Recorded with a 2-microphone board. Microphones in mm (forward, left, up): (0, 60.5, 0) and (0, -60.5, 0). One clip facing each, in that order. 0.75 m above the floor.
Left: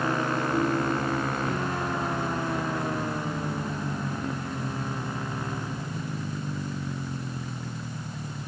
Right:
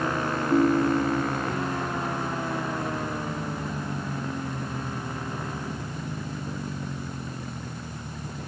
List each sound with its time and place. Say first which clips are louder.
0.5 s a ringtone: right 8 dB; 70° right (ahead or behind), 1.2 m